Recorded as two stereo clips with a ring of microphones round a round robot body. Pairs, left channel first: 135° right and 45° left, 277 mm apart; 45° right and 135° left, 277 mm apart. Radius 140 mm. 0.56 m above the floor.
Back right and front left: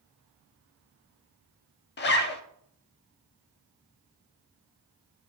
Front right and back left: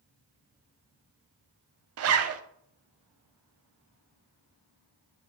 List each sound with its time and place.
2.0 s a zipper: 170° left, 0.6 m